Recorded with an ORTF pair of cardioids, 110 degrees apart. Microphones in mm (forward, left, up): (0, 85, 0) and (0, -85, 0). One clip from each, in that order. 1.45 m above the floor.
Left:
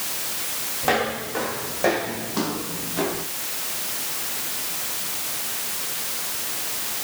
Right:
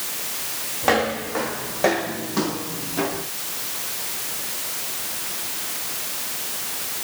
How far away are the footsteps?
About 5.5 m.